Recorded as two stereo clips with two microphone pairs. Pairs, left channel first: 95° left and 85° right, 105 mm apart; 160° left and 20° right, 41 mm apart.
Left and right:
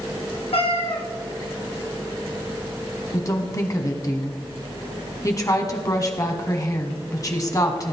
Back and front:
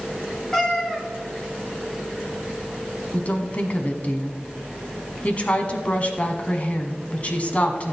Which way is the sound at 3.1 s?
135° left.